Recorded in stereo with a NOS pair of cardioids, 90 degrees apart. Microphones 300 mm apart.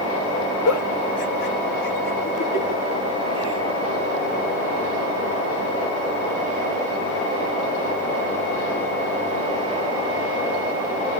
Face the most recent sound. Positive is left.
turn(degrees=65)